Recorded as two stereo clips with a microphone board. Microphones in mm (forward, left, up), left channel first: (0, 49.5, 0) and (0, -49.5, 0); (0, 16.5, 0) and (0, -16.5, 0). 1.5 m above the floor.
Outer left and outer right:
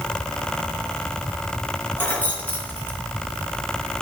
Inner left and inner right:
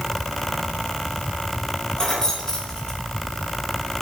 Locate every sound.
2.0 s keys jangling: 20° left (ahead or behind), 1.2 m